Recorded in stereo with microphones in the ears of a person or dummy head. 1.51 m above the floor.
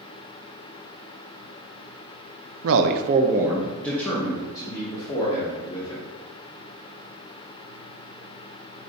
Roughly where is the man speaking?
Right.